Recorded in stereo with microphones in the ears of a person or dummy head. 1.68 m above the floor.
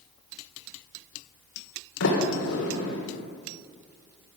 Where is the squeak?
No squeak in this recording.